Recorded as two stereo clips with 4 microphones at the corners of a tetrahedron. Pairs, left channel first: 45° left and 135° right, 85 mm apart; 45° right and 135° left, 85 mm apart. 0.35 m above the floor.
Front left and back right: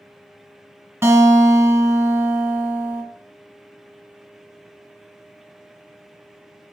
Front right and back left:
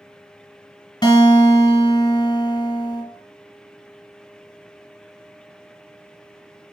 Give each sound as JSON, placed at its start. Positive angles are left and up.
{"t": 1.0, "sound": "a guitar", "azimuth_deg": -80, "distance_m": 2.0}